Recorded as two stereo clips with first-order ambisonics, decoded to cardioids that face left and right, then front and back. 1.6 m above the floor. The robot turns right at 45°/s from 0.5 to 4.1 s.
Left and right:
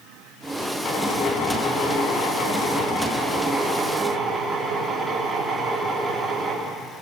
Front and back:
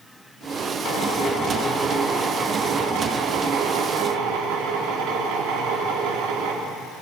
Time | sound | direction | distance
0.8 | a drill | 40° left | 4.5 m